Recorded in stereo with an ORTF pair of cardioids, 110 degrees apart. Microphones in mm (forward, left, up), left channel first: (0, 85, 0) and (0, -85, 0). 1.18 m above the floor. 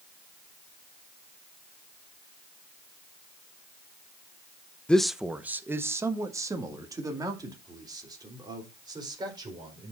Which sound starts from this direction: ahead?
A man speaking, at 4.9 s.